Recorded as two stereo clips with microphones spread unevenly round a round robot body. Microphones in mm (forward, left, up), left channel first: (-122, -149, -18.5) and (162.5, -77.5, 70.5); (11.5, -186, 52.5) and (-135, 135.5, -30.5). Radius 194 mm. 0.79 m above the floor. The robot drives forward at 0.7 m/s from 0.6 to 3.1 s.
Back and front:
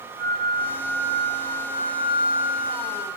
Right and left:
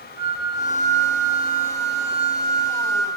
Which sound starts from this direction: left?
A flute, at 0.2 s.